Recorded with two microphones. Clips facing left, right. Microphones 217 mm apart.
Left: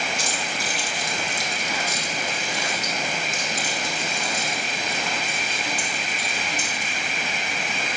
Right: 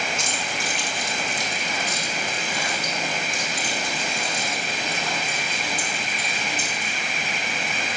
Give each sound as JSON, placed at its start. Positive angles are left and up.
{"t": 0.2, "sound": "keys jangling", "side_deg": 35, "distance_m": 2.0}